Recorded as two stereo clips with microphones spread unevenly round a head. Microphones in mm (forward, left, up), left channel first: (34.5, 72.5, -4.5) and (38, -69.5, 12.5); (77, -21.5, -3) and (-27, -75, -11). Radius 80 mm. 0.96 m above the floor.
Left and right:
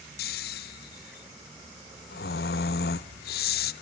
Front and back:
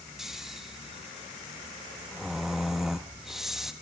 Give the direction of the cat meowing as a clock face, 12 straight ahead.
No cat meowing in this recording.